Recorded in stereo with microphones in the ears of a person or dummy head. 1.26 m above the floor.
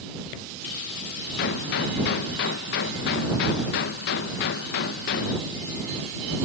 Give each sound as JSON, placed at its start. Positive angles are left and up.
{"t": 1.4, "sound": "a gunshot", "side_deg": 50}